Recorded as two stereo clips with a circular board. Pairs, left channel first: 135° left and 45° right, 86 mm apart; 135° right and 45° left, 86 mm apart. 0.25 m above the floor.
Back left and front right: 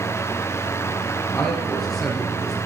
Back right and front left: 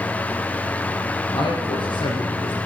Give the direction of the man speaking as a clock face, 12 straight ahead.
5 o'clock.